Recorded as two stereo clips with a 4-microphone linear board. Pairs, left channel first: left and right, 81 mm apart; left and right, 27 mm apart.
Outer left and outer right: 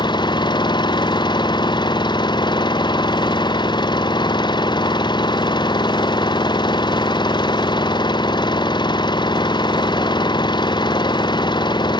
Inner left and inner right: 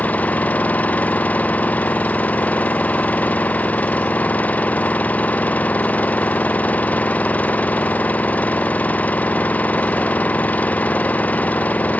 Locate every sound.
0.0 s an engine running: 65° left (ahead or behind)